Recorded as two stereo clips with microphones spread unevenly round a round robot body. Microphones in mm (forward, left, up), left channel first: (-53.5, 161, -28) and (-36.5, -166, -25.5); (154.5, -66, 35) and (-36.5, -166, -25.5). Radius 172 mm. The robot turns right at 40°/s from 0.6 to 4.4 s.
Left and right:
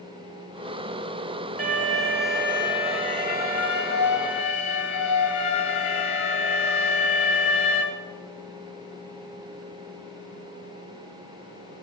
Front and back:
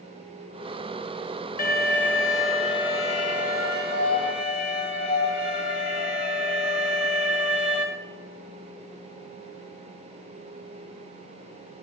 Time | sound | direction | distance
1.6 | an alarm | 25° right | 1.7 m